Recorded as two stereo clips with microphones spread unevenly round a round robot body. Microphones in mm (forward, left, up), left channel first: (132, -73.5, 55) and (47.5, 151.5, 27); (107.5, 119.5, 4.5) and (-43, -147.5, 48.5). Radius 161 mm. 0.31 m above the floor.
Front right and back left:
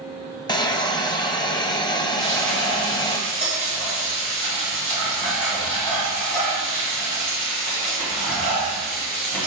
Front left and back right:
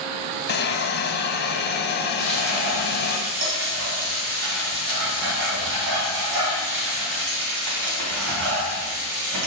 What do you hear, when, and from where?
0.5 s a hiss: 5° left, 0.8 m
2.2 s frying: 140° right, 2.5 m